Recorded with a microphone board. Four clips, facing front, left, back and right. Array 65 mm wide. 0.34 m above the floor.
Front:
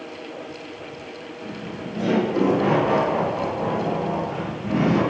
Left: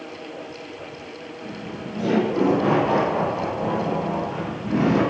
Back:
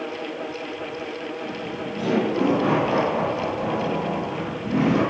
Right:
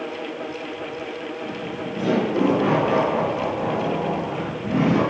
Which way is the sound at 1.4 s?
30° right.